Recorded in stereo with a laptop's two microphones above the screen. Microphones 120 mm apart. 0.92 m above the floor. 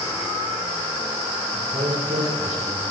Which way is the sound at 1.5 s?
55° right (ahead or behind).